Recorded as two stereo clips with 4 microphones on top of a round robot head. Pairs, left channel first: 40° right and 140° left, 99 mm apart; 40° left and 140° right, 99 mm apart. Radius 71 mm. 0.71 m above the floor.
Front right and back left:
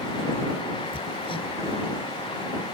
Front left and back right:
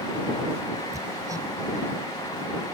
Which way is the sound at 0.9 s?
80° right.